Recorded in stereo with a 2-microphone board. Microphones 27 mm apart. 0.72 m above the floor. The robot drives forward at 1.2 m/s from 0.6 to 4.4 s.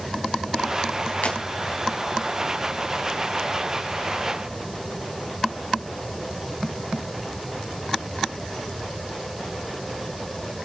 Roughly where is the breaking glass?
Left.